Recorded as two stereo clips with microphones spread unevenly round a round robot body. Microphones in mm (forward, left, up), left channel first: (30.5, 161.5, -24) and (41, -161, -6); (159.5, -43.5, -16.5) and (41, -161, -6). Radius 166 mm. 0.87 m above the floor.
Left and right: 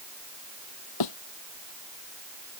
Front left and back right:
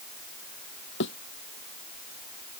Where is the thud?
75° left.